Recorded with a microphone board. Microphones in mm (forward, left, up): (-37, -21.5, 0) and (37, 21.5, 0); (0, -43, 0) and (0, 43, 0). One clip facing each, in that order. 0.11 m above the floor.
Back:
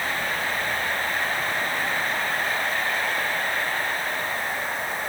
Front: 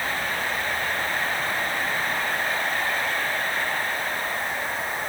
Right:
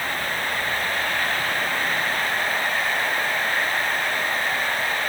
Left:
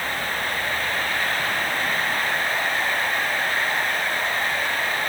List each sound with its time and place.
Only background noise.